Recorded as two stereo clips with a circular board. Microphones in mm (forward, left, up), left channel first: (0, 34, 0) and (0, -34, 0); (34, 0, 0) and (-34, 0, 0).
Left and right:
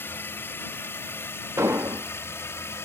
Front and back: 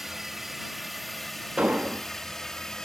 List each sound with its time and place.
0.0 s a drone: 95° left; by 2.9 s 75° left
1.6 s an explosion: 115° right